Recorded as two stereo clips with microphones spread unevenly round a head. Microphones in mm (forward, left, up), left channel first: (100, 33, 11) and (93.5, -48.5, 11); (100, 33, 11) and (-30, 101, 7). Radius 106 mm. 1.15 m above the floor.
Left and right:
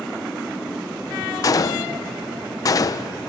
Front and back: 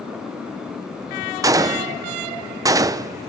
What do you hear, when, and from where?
1.4 s a gunshot: 95° left, 0.7 m